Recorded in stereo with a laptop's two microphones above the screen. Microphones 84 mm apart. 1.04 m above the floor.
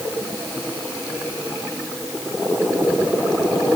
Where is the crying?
No crying in this recording.